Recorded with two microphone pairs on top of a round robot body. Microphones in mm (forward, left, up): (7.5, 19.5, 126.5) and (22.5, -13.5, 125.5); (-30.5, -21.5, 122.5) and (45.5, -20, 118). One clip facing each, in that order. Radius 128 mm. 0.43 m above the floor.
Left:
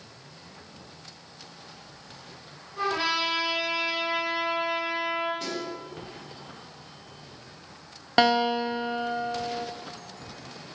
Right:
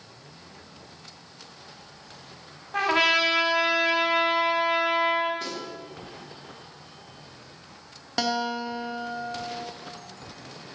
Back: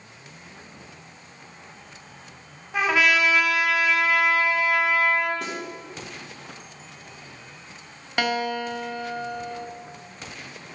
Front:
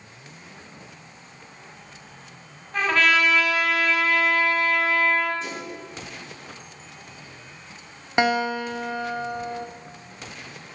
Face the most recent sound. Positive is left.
turn(degrees=60)